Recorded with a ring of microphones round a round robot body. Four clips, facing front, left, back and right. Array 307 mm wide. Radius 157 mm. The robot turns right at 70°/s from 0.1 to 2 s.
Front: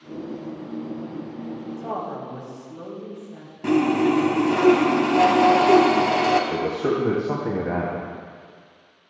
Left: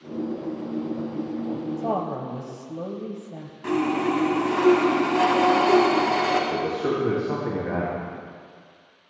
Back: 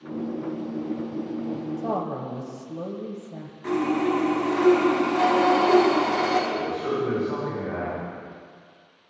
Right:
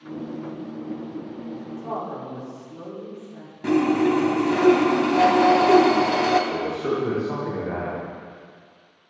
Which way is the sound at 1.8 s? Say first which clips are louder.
Left 2 dB, even; 115° left.